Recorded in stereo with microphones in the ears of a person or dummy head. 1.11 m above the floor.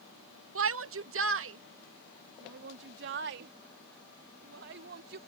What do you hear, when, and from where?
0.6 s a shout: 65° right (ahead or behind); by 5.2 s 55° right (ahead or behind)